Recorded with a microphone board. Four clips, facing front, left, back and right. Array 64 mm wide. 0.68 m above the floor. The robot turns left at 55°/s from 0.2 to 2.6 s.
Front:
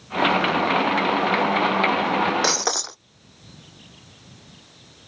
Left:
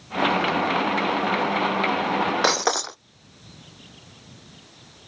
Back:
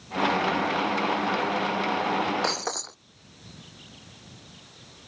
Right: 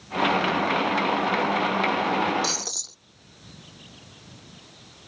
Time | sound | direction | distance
2.4 | breaking glass | 75° left | ?